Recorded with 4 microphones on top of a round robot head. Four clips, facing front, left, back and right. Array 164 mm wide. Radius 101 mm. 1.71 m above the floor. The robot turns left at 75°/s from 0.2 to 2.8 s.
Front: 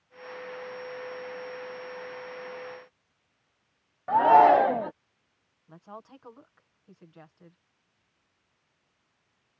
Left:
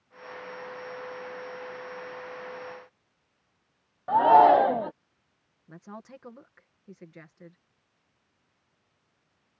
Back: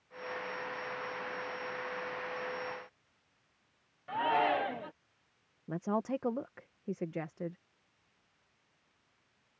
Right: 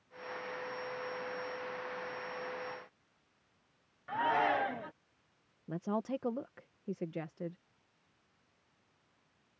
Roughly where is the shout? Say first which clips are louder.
Left 15 dB, front 13 dB; ahead left.